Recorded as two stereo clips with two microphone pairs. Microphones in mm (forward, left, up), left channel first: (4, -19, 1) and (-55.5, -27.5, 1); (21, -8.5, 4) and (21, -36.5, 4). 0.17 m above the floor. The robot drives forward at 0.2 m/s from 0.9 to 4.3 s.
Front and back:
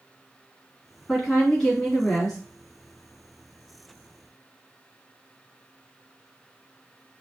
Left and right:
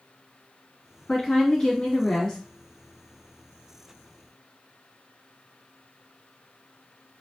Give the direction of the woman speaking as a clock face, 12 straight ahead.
10 o'clock.